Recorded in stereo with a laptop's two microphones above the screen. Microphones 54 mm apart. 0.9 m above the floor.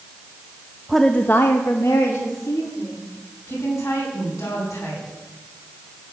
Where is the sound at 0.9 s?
5° right (ahead or behind), 0.8 m; by 3.0 s 75° left (ahead or behind), 3 m.